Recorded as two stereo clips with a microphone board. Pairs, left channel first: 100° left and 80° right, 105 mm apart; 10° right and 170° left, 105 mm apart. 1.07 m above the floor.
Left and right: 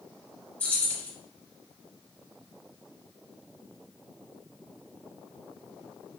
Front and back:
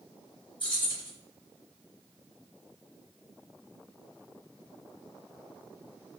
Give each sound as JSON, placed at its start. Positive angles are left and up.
{"t": 0.6, "sound": "keys jangling", "azimuth_deg": 25, "distance_m": 1.2}